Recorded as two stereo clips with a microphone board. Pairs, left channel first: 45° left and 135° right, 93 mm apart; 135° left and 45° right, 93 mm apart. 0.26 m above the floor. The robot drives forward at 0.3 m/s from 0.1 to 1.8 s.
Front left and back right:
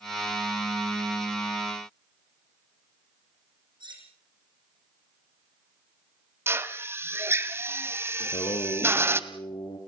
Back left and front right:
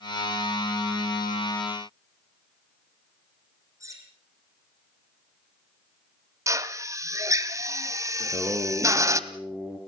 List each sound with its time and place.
3.8 s cutlery clinking: 100° right, 7.5 m
6.5 s a drill: 85° right, 1.6 m
8.2 s singing: 25° left, 4 m